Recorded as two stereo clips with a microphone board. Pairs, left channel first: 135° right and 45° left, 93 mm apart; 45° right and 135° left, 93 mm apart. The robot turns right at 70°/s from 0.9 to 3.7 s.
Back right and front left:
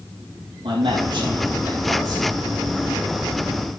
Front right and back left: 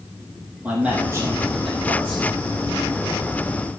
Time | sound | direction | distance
0.6 | a man speaking | 60° left | 5.5 m